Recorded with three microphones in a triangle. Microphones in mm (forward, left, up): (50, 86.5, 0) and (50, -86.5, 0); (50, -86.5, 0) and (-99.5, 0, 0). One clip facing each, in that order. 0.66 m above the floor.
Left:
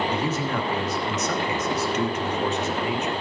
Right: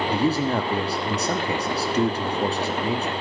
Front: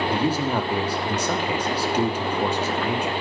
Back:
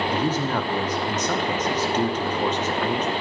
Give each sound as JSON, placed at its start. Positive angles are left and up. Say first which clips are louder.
{"t": 0.1, "sound": "a man speaking", "louder": "right 4 dB, front 1 dB", "azimuth_deg": -105, "distance_m": 1.0}